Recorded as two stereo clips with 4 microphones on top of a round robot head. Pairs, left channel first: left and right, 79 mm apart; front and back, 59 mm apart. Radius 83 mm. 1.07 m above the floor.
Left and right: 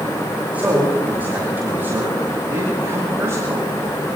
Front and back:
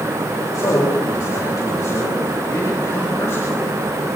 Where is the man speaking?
20° right, 8.5 m; by 3.7 s 40° right, 8 m.